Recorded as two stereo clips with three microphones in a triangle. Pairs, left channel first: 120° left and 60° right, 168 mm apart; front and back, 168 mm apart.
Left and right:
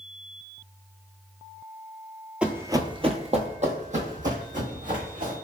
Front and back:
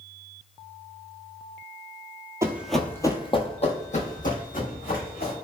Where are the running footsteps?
135° right, 0.5 m; by 5.3 s 25° right, 1.7 m.